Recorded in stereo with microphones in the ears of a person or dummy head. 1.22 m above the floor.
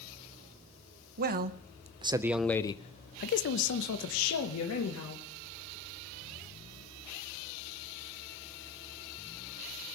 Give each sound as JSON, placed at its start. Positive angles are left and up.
{"t": 1.2, "sound": "a man speaking", "side_deg": -50, "distance_m": 0.9}